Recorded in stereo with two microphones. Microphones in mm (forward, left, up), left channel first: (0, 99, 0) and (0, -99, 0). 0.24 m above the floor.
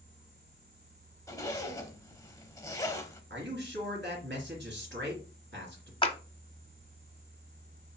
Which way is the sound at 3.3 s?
70° right (ahead or behind).